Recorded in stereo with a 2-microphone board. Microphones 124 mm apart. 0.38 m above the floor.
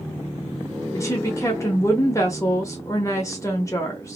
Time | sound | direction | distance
0.9 | a woman speaking | 25° left (ahead or behind) | 0.9 m